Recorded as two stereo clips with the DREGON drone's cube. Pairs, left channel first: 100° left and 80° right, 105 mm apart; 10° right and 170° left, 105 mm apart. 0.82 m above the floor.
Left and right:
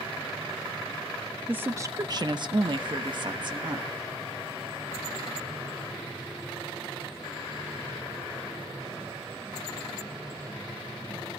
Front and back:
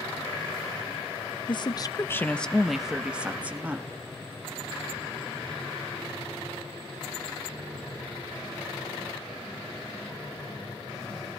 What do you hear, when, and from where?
1.5 s a woman speaking: 10° right, 0.7 m; by 3.9 s 120° right, 1.7 m